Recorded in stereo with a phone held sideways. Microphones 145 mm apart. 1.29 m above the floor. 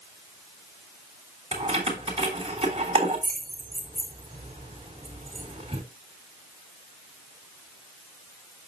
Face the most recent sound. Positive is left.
turn(degrees=-40)  # may be behind; listen again after turning